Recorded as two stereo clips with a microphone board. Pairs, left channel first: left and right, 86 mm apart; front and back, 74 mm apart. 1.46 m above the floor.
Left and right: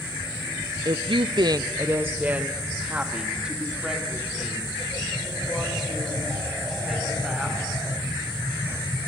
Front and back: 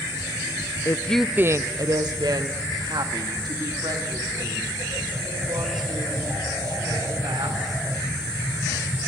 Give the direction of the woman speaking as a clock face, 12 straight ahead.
2 o'clock.